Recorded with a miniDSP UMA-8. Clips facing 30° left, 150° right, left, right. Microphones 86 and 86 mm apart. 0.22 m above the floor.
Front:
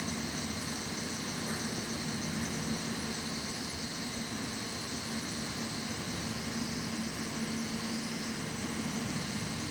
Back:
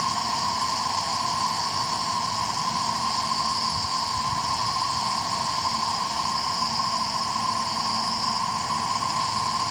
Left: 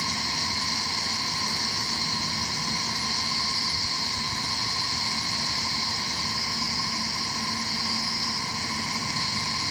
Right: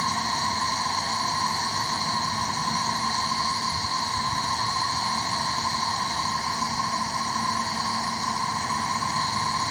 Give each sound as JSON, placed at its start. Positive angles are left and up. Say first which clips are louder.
{"t": 0.0, "sound": "an insect", "louder": "back 12 dB, right 6 dB", "azimuth_deg": -145}